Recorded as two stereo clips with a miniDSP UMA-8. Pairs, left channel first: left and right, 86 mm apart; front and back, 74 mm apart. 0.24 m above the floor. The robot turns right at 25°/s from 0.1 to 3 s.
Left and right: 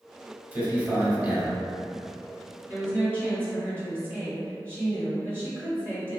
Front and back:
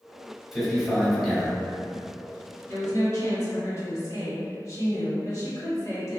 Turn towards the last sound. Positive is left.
turn(degrees=-30)